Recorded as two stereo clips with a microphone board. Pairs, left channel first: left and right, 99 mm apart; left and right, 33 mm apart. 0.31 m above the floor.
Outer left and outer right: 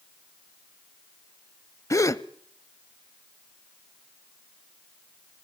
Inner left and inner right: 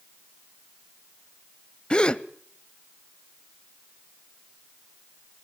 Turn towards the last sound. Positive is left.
turn(degrees=30)  # may be behind; listen again after turning